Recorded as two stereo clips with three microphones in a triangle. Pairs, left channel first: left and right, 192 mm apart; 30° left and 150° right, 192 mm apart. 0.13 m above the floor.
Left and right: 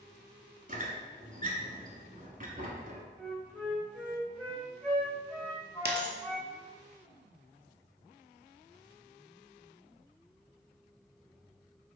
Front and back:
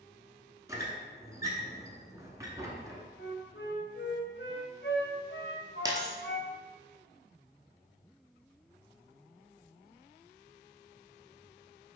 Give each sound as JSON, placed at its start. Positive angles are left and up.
{"t": 0.7, "sound": "a squeak", "azimuth_deg": -85, "distance_m": 0.9}
{"t": 3.2, "sound": "a flute", "azimuth_deg": 10, "distance_m": 1.4}
{"t": 5.8, "sound": "a dropped coin", "azimuth_deg": -80, "distance_m": 0.7}